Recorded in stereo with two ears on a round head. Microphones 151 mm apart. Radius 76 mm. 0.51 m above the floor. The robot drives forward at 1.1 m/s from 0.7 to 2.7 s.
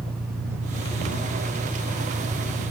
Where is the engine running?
15° right (ahead or behind).